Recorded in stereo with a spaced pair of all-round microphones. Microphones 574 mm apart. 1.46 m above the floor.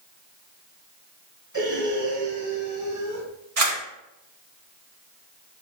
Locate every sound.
1.5 s breathing: 30° right (ahead or behind), 1.9 m
3.6 s a camera shutter: 75° right (ahead or behind), 1.7 m